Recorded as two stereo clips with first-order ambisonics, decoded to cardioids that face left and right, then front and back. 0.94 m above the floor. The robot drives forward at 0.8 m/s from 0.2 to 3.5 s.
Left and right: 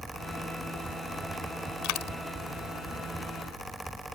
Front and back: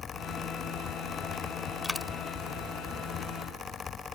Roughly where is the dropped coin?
Left.